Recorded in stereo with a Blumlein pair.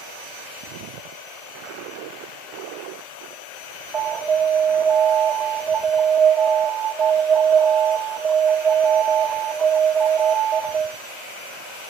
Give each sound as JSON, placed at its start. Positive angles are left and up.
{"t": 3.9, "sound": "an alarm", "azimuth_deg": -15, "distance_m": 2.0}